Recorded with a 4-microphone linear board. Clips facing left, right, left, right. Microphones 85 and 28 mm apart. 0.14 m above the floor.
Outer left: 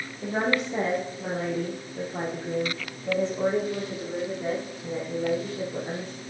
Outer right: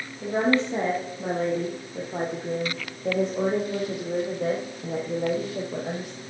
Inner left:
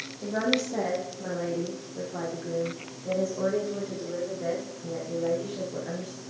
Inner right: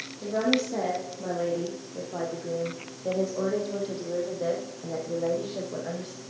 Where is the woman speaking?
20° right (ahead or behind), 4 m; by 6.2 s 80° right, 6.5 m.